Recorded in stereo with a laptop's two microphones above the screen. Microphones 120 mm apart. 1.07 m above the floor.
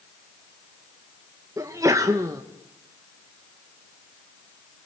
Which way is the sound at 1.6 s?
25° right (ahead or behind).